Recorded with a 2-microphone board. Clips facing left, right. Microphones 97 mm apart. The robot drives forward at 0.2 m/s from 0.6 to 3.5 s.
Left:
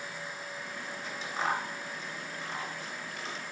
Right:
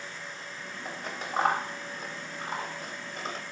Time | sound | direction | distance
0.8 | scissors | 55° right (ahead or behind) | 1.9 m